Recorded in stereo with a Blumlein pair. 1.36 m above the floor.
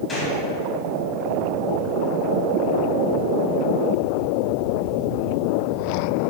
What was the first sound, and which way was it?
A gunshot, 15° left.